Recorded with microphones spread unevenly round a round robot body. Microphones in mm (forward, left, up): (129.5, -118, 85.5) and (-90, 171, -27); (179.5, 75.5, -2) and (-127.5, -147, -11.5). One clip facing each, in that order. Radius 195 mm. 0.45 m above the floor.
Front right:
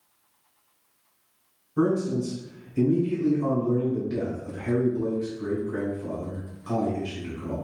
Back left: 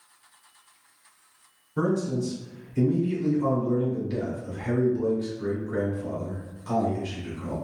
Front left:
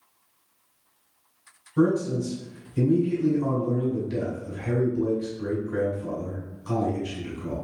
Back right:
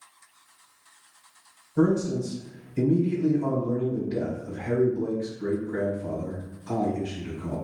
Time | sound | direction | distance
1.8 | a man speaking | 85° left | 1.9 m